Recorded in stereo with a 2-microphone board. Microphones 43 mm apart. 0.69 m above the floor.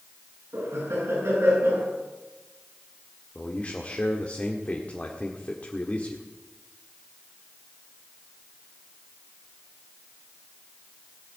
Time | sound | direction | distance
0.5 | laughter | 85° right | 7 m
3.4 | a man speaking | 30° left (ahead or behind) | 1.6 m